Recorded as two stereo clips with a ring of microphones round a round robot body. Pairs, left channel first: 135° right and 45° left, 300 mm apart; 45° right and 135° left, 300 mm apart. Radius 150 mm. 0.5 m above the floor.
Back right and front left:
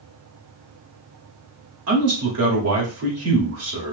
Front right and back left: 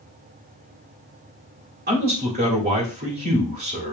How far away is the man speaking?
About 2 m.